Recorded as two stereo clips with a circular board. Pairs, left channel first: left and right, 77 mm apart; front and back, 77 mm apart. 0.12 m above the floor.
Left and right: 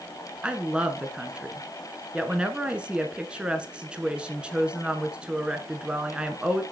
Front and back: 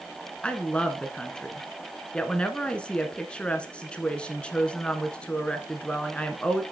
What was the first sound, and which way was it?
A woman speaking, 45° right.